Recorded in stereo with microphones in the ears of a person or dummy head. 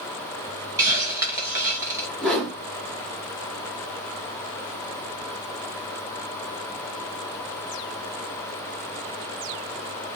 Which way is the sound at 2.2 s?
5° left (ahead or behind).